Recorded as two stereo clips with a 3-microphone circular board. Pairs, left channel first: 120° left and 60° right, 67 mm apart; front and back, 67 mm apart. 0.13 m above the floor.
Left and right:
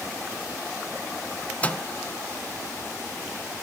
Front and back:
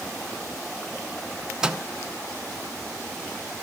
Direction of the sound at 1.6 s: 120° left.